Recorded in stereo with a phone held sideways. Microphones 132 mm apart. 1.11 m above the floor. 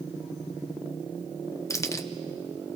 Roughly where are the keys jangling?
Left.